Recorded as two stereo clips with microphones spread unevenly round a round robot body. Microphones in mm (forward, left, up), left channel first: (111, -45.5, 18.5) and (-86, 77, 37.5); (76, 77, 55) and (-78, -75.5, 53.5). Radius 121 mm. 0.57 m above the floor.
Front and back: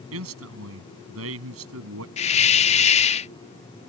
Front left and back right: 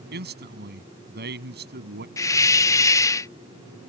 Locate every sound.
0.1 s a man speaking: straight behind
2.2 s a hiss: 20° right